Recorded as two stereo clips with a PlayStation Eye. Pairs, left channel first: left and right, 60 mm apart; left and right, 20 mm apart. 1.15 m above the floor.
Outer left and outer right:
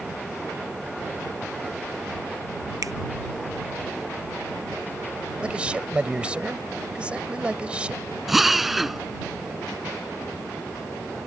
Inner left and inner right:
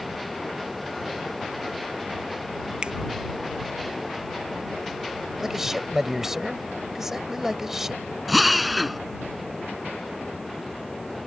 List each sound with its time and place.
2.8 s a finger snap: 65° right (ahead or behind)
5.4 s a man speaking: 15° right (ahead or behind)
8.3 s a drill: centre (ahead or behind)